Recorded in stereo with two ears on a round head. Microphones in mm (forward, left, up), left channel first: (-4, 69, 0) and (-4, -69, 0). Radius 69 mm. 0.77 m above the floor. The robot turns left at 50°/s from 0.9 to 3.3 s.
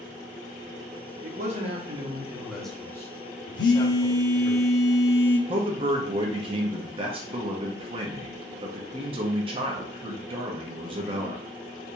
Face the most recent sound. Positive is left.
turn(degrees=-35)  # may be behind; listen again after turning